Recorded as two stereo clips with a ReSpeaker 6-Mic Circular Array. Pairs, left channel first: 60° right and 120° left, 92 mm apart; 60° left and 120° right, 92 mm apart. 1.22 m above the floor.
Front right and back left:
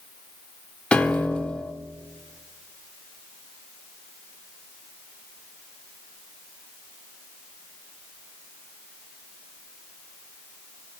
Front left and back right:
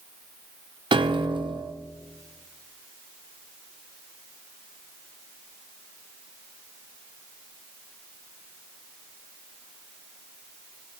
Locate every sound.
0.9 s a piano: 140° right, 0.7 m